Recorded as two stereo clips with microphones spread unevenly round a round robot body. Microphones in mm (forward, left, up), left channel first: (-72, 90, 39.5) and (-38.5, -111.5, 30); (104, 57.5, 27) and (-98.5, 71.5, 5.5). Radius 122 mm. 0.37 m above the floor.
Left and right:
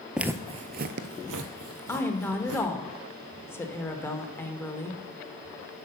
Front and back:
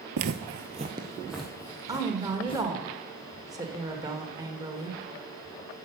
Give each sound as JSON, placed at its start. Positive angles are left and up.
{"t": 0.2, "sound": "footsteps", "azimuth_deg": -170, "distance_m": 0.5}
{"t": 1.9, "sound": "a woman speaking", "azimuth_deg": 165, "distance_m": 1.0}